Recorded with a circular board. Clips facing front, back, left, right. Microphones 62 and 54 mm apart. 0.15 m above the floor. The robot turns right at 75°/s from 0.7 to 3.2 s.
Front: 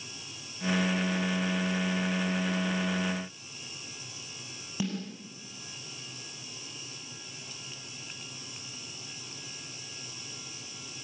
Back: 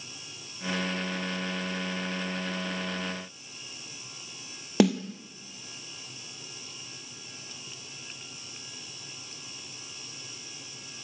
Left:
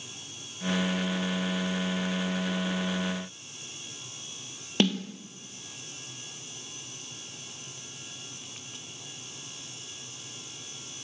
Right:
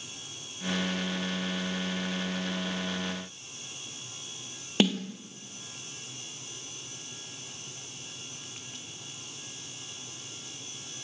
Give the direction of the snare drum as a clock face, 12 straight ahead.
6 o'clock.